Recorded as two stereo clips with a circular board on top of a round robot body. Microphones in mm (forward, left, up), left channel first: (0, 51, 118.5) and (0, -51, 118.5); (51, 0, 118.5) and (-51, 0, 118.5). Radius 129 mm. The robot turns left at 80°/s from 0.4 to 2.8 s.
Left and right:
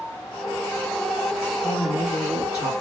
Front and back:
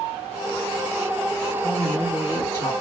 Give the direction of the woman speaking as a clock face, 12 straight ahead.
8 o'clock.